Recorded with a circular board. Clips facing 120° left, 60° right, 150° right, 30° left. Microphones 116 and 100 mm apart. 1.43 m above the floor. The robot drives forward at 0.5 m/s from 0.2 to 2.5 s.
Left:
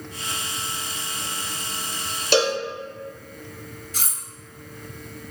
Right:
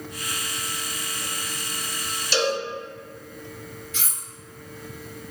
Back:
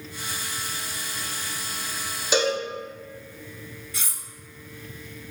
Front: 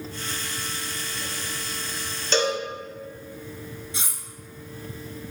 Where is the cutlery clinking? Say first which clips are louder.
Left 1 dB, front 2 dB; 90° left, 1.0 m.